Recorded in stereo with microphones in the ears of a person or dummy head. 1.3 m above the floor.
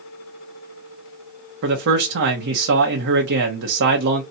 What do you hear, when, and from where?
1.6 s a man speaking: 65° right (ahead or behind), 0.8 m